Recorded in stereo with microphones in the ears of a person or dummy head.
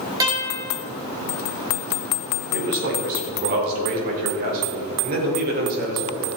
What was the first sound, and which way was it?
A guitar, 15° right (ahead or behind).